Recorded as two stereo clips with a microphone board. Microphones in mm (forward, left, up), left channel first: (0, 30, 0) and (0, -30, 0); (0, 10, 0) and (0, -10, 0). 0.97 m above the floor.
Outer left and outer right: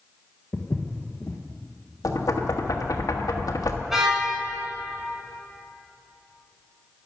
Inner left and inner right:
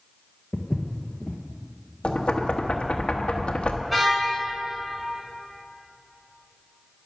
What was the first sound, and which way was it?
Footsteps, 45° left (ahead or behind).